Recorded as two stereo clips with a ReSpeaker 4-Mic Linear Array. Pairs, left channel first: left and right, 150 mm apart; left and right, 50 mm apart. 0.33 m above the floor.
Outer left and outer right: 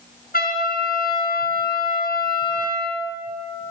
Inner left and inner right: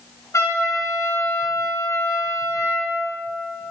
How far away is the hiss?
I don't hear a hiss.